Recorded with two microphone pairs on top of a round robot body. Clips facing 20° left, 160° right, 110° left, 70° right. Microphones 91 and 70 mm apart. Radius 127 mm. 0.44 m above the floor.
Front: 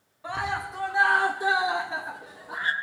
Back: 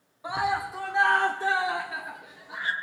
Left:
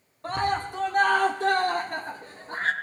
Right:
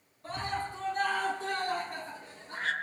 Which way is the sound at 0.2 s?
135° left.